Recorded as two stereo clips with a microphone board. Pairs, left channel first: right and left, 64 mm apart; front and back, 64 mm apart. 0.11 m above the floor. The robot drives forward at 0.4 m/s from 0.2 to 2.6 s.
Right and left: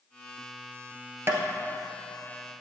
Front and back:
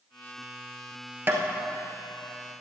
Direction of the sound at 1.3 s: 130° left.